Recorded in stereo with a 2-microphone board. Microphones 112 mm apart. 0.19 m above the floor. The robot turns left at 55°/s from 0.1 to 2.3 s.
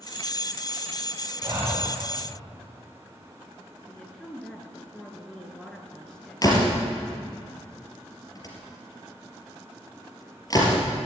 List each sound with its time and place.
1.4 s breathing: 30° right (ahead or behind), 4 m; by 1.9 s centre (ahead or behind), 4 m
3.9 s a woman speaking: 5° left (ahead or behind), 2.5 m
6.4 s a door slam: 35° left (ahead or behind), 4 m